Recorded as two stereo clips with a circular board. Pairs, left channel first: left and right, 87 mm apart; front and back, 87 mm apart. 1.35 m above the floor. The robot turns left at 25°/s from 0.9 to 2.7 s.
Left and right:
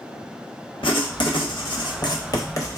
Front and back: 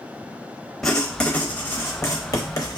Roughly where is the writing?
Left.